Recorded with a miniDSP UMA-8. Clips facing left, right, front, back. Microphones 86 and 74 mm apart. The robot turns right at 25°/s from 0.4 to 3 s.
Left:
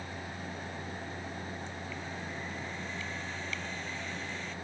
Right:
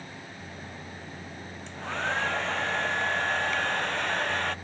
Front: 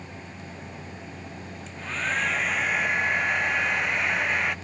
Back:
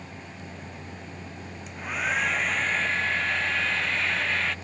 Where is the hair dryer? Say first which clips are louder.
Right 9 dB, back 1 dB; 105° right; by 4.5 s 70° right.